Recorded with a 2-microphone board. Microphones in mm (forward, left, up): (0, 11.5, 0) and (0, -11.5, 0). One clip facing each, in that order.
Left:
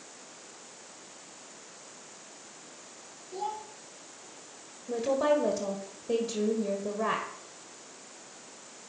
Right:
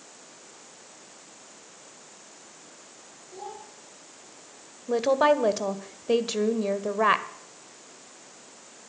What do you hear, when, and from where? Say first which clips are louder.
3.3 s a child speaking: left 5 dB; 25° left (ahead or behind), 6 m
4.9 s a woman speaking: right 5 dB; 45° right (ahead or behind), 1.3 m